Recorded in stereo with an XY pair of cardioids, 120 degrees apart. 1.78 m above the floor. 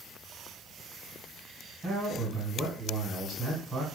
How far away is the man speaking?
About 1.9 m.